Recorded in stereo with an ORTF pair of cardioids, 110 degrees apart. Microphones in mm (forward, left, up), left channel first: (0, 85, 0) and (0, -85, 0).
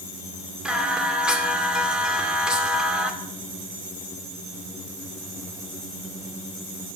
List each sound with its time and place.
0.7 s singing: 5° right, 1.9 m